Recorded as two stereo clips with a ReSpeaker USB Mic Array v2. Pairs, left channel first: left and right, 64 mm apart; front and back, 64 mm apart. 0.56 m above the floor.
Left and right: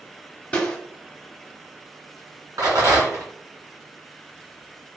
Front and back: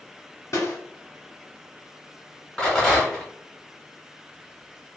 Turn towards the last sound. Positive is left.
turn(degrees=-75)